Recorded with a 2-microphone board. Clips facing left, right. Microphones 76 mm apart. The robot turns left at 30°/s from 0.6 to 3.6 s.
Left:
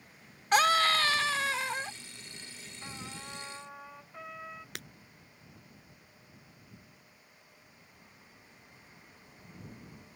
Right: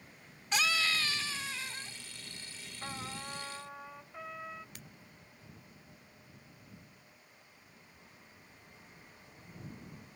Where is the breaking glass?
70° left (ahead or behind).